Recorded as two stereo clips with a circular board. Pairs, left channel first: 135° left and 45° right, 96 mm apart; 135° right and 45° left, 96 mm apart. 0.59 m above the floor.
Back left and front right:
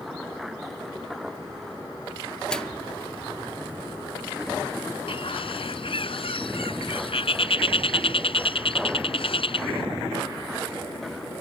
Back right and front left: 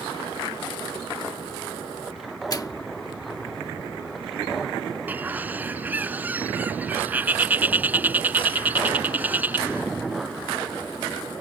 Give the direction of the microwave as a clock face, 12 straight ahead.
5 o'clock.